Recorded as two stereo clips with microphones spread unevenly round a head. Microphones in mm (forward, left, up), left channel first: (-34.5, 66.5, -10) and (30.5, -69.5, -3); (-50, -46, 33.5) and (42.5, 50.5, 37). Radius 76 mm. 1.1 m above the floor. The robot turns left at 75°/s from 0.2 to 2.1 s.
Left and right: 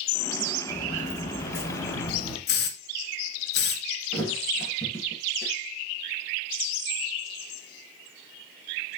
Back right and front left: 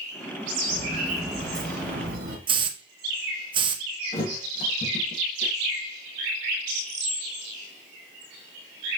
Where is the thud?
170° right, 2 m.